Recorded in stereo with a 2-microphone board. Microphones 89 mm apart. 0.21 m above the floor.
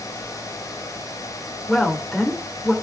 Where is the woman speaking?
5° left (ahead or behind), 2.5 m.